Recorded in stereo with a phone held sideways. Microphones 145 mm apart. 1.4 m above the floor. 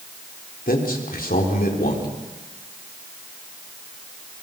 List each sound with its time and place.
0.7 s a man speaking: 90° left, 4 m